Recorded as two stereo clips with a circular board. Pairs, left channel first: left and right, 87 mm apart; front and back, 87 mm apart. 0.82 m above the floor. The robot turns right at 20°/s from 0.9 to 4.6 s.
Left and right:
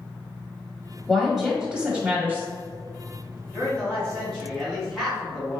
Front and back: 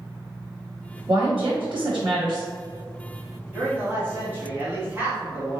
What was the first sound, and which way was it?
A woman speaking, 175° left.